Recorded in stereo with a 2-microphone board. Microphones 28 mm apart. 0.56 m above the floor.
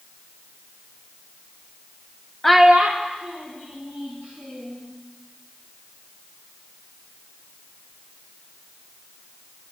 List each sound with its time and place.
2.4 s a child speaking: 10° left (ahead or behind), 0.5 m; by 4.8 s 75° right (ahead or behind), 3.5 m